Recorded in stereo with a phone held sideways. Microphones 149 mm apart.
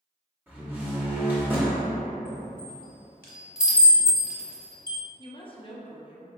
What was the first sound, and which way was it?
A door slam, 10° right (ahead or behind).